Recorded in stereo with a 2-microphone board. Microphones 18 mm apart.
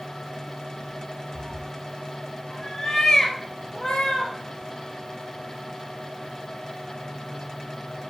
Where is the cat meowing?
35° right (ahead or behind), 1.2 m; by 4.3 s 50° left (ahead or behind), 2.5 m.